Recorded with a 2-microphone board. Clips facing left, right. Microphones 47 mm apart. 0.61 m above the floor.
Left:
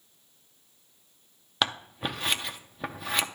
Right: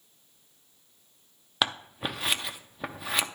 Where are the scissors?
Centre (ahead or behind), 0.6 m.